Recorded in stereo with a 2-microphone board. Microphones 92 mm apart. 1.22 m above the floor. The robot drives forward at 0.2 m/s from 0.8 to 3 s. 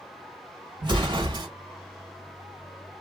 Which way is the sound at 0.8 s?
50° right (ahead or behind).